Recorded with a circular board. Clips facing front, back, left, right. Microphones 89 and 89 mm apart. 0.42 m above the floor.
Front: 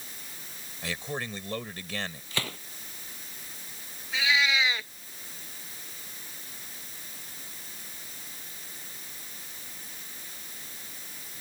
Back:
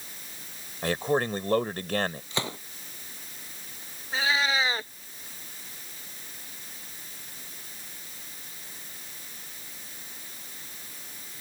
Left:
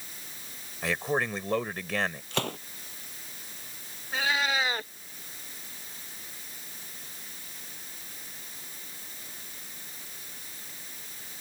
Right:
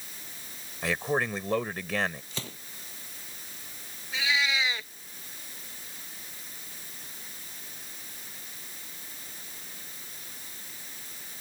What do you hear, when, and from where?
0.8 s a man speaking: straight behind
2.3 s a gunshot: 110° left
4.1 s a cat meowing: 130° left